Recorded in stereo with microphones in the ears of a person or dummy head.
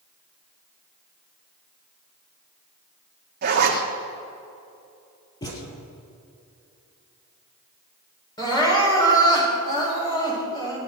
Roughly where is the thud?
Left.